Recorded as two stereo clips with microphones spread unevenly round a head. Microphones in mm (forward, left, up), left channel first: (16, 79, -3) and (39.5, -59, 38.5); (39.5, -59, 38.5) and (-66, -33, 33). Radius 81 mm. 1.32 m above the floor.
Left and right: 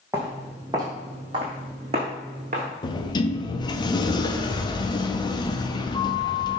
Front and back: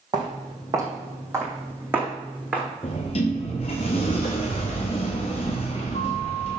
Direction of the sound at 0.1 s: 145° right.